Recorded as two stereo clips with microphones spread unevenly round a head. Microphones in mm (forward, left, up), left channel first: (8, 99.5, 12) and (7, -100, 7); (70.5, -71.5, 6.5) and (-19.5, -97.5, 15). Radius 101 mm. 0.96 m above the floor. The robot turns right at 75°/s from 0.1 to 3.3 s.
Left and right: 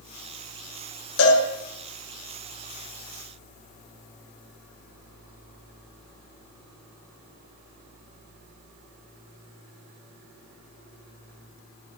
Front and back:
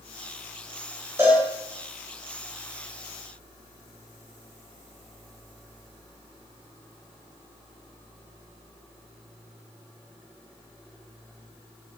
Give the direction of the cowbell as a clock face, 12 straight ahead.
8 o'clock.